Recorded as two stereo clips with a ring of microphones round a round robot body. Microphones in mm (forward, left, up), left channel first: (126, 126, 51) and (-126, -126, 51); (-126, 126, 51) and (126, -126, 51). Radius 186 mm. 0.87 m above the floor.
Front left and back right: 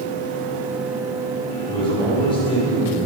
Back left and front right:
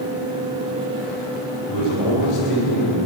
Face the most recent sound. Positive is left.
turn(degrees=120)